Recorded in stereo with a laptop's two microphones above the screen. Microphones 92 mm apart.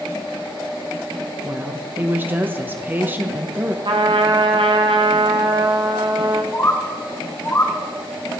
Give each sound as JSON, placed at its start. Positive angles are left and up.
{"t": 1.4, "sound": "a woman speaking", "side_deg": -20, "distance_m": 0.8}
{"t": 3.9, "sound": "a trumpet", "side_deg": -55, "distance_m": 1.0}
{"t": 6.5, "sound": "a bird", "side_deg": 30, "distance_m": 1.6}